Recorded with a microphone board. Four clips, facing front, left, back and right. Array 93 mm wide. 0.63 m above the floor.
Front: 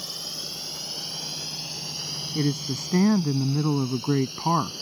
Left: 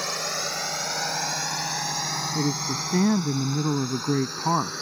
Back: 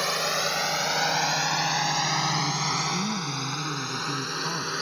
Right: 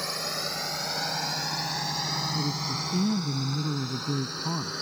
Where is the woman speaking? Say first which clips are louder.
Left 4 dB, even; 45° left.